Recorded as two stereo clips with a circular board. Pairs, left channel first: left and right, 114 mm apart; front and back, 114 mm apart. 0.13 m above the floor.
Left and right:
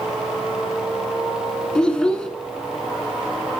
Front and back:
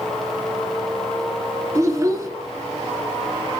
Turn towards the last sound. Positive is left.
turn(degrees=165)